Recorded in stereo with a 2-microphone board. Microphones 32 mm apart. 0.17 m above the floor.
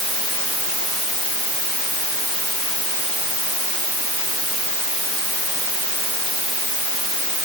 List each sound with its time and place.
Only background noise.